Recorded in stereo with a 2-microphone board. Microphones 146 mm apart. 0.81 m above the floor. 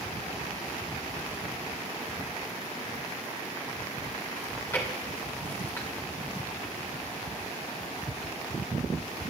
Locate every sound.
4.4 s chewing: 20° left (ahead or behind), 3 m